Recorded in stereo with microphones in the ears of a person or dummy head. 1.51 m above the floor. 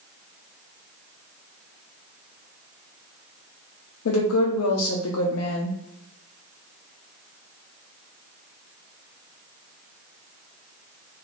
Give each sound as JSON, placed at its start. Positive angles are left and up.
{"t": 4.0, "sound": "a woman speaking", "side_deg": 80, "distance_m": 0.6}